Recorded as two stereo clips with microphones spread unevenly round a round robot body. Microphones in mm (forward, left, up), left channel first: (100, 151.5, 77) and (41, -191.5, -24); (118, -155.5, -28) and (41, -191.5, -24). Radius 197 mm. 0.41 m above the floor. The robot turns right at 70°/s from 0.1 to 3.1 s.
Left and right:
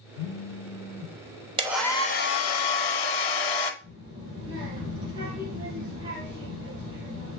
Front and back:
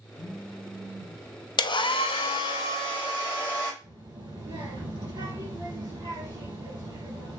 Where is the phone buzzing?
95° left, 0.5 m; by 1.2 s 165° left, 0.5 m.